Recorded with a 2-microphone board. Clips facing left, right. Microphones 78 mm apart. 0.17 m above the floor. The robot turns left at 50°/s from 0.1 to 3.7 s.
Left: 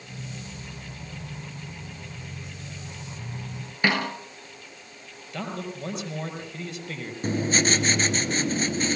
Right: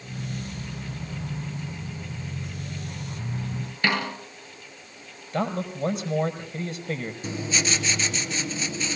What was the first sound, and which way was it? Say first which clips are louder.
A snare drum: left 1 dB; 20° left (ahead or behind).